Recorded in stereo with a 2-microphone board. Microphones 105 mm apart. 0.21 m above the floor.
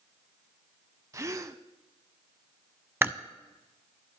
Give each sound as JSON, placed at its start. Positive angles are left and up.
{"t": 1.1, "sound": "a gasp", "side_deg": -30, "distance_m": 0.6}
{"t": 3.0, "sound": "chewing", "side_deg": -20, "distance_m": 0.6}